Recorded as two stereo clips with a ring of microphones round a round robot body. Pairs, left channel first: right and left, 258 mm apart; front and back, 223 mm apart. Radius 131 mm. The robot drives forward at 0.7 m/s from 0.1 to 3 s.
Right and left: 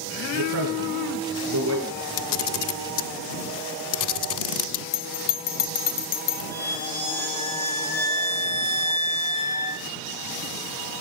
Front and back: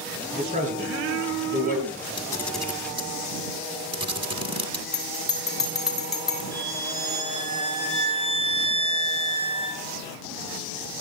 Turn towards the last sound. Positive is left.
turn(degrees=-170)